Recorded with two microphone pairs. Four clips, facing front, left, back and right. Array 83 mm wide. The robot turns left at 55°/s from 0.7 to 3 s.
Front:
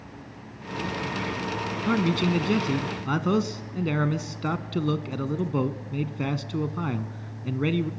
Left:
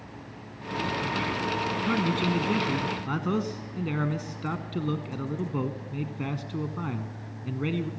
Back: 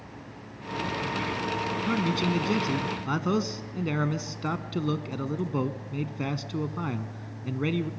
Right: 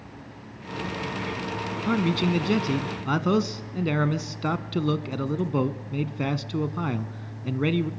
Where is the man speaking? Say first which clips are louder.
Right 4 dB, front 5 dB; 20° right, 1.0 m; by 7.9 s 80° right, 1.0 m.